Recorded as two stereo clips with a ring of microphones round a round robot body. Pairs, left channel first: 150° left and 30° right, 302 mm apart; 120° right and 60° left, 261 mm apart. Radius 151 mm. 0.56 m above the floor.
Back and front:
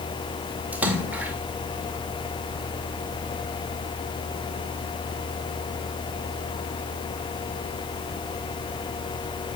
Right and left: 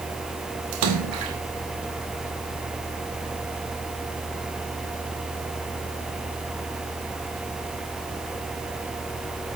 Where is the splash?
55° left, 2 m.